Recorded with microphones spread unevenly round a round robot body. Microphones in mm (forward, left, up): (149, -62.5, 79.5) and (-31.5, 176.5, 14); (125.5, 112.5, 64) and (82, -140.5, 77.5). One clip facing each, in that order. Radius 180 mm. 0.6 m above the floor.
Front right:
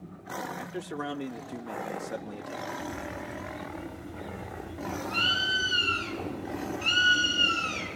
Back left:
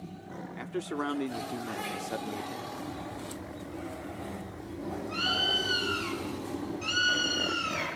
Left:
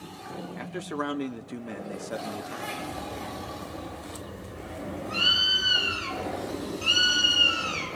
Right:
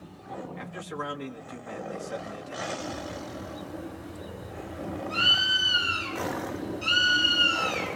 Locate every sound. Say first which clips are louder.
0.6 s a man speaking: back left 5 dB, left 4 dB; 60° left, 1.7 m
2.8 s a bird: front right 1 dB, even; 20° left, 4.5 m